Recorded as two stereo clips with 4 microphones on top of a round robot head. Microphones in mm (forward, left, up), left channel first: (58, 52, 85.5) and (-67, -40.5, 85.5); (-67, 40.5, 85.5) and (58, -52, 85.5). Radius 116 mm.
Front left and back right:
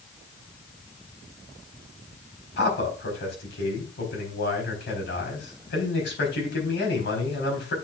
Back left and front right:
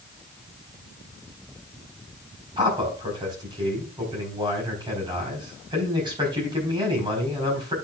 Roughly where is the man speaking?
Ahead left.